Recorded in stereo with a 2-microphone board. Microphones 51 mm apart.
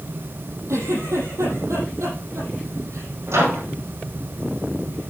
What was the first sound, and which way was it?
A giggle, 80° right.